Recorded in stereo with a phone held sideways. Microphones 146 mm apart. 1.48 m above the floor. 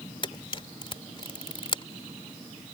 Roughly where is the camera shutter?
Left.